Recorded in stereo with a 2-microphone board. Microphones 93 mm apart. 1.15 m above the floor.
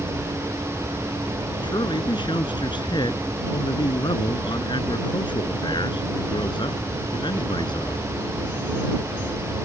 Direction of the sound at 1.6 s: 60° left (ahead or behind).